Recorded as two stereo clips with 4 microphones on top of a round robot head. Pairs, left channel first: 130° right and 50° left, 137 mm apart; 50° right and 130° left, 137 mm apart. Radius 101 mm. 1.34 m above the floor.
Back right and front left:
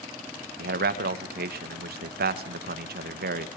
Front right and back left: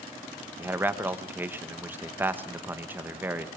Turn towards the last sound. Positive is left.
turn(degrees=50)